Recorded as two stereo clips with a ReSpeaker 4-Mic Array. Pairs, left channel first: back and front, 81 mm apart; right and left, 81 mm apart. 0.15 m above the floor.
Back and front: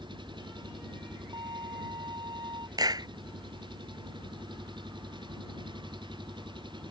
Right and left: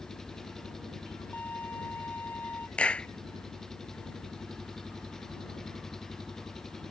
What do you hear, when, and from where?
0.0 s an engine running: 5° right
1.3 s a violin: 20° right
2.8 s a clap: 15° right